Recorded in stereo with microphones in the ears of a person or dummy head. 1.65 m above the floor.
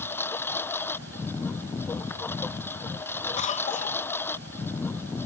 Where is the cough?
35° left (ahead or behind).